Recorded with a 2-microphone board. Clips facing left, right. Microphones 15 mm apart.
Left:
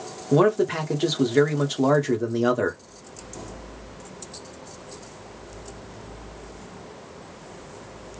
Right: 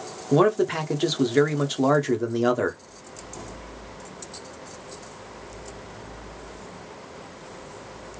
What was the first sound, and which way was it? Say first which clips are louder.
A man speaking: even; 5° right (ahead or behind).